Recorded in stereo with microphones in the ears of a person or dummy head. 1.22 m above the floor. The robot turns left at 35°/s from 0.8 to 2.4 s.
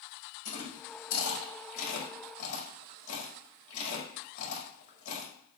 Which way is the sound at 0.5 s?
60° left (ahead or behind).